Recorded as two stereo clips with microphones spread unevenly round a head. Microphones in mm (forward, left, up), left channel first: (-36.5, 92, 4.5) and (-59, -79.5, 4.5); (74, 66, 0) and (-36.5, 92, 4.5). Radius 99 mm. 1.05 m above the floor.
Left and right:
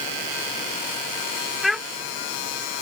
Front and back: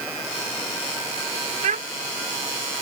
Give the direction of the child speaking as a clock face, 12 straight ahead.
6 o'clock.